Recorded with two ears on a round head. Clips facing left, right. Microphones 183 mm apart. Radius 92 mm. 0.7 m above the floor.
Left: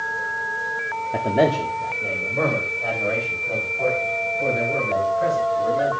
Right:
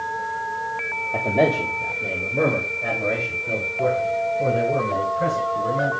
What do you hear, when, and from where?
1.1 s a man speaking: 20° left (ahead or behind), 1.3 m; by 5.9 s 40° right (ahead or behind), 7.5 m